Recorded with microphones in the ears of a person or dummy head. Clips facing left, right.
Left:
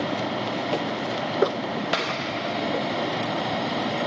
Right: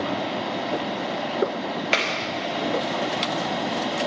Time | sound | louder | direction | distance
0.0 | a fan | even | centre (ahead or behind) | 1.5 m
1.9 | a clap | right 1 dB | 30° right (ahead or behind) | 0.9 m